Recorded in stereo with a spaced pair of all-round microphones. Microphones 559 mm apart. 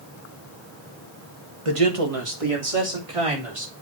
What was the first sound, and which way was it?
A man speaking, 65° right (ahead or behind).